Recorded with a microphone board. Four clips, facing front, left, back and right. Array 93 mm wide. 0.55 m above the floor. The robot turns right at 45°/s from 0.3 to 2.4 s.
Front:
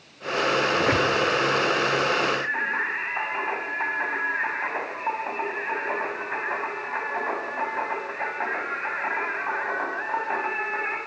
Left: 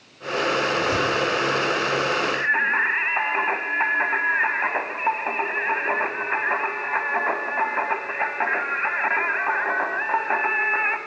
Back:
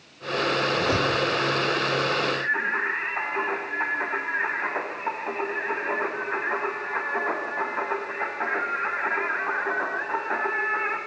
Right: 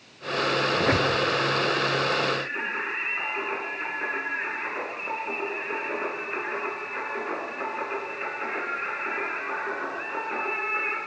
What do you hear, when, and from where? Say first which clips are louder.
0.8 s a squeak: left 1 dB, front 2 dB; 50° right, 4 m; by 1.1 s 35° right, 4 m
2.3 s singing: left 9 dB, back 1 dB; 80° left, 4 m; by 11.0 s 85° left, 4 m